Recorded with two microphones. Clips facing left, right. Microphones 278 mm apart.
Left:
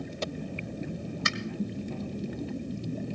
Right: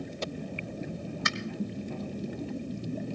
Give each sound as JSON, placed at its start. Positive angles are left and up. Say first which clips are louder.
{"t": 1.2, "sound": "a finger snap", "louder": "left 1 dB", "side_deg": 35, "distance_m": 1.7}